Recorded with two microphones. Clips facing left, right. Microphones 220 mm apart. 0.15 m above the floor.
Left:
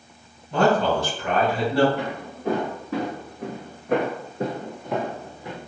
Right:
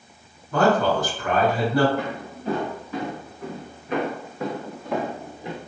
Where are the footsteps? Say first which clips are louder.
Even; 85° left, 1.5 m; by 5.6 s 25° right (ahead or behind), 0.7 m.